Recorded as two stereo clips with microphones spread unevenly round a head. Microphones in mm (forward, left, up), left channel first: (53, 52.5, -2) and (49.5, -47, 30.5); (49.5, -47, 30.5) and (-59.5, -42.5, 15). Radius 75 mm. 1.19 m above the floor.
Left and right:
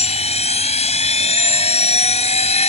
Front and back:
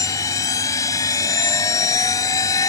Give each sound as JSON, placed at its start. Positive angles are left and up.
{"t": 0.0, "sound": "a machine running", "azimuth_deg": 70}